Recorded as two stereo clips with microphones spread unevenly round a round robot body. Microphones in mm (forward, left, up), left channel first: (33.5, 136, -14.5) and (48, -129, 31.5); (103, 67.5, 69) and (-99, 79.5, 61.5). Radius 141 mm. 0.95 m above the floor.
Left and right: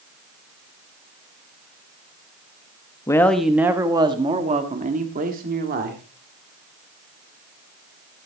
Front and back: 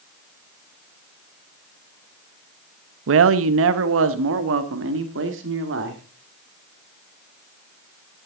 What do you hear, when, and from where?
3.1 s a man speaking: 170° left, 0.8 m; by 6.0 s 145° right, 2 m